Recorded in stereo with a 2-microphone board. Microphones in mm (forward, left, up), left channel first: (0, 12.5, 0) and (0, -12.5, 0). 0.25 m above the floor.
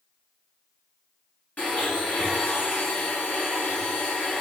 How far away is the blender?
About 1.5 m.